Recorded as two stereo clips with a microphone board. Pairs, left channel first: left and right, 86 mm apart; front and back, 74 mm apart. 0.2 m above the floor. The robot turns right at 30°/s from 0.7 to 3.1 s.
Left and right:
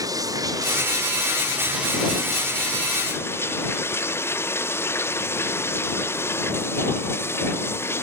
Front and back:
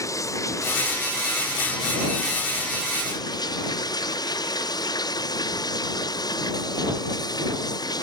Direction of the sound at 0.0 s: 45° right.